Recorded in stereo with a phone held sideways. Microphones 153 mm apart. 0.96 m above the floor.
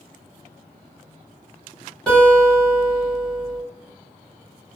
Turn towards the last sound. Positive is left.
turn(degrees=5)  # may be behind; listen again after turning